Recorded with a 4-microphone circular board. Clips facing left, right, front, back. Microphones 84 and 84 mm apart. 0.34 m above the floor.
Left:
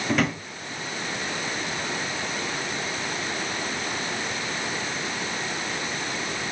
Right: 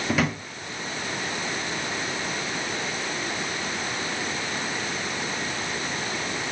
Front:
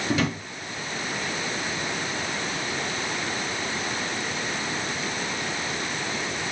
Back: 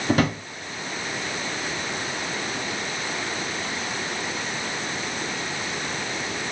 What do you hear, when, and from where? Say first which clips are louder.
0.1 s a drawer: left 1 dB, back 4 dB; 175° right, 0.7 m